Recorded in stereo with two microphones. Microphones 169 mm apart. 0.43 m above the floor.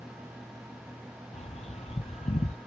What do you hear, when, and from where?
1.3 s a bird: 40° left (ahead or behind), 0.7 m